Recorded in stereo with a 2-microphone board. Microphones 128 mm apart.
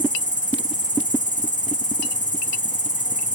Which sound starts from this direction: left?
An insect, at 0.0 s.